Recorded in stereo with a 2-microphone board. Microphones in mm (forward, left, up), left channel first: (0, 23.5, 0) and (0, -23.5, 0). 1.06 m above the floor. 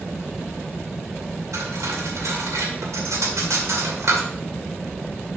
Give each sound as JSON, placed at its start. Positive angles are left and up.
{"t": 1.5, "sound": "cutlery clinking", "side_deg": -80, "distance_m": 2.0}